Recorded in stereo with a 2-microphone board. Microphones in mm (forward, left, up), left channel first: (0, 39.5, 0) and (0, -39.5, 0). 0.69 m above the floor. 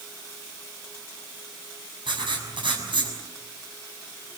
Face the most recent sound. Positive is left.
turn(degrees=-80)